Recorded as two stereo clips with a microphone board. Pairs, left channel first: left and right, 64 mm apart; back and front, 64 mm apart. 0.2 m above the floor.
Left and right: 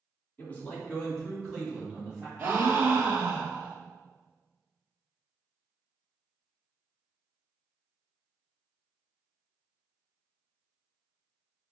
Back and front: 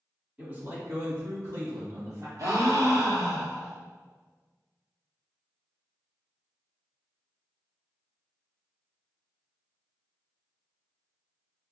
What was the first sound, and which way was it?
A man speaking, 45° left.